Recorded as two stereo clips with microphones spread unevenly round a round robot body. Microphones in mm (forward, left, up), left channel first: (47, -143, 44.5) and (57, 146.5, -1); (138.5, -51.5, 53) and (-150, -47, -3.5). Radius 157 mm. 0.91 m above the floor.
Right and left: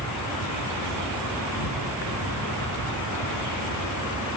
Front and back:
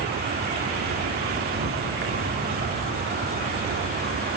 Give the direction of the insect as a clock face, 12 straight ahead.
4 o'clock.